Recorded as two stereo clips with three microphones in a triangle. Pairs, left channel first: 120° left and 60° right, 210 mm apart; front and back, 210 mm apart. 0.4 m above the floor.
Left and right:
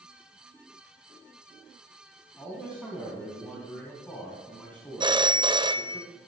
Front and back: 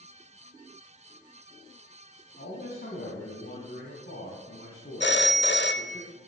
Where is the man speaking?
35° left, 3.5 m.